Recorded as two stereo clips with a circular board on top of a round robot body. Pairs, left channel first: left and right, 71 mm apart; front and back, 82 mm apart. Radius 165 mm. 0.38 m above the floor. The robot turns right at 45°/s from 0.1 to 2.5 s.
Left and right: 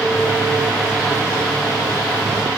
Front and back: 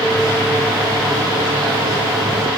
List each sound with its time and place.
Only background noise.